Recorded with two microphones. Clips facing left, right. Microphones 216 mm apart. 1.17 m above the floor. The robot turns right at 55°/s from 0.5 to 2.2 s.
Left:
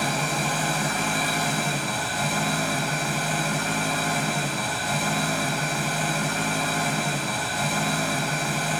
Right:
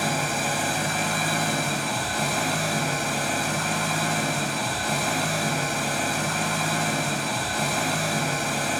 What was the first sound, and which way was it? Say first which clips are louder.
An engine running: even; 175° right.